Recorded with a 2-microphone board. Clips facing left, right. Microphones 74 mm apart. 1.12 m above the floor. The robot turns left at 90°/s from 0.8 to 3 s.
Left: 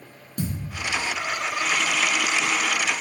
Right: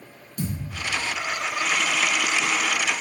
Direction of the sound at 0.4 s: 50° left (ahead or behind).